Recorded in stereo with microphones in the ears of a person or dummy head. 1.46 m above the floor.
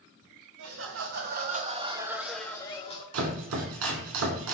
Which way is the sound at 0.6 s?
60° right (ahead or behind).